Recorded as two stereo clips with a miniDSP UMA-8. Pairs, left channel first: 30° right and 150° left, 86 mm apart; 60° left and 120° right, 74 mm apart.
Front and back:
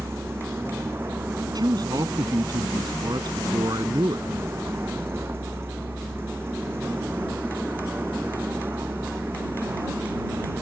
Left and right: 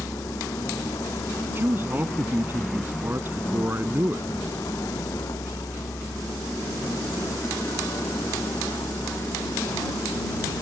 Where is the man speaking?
175° right.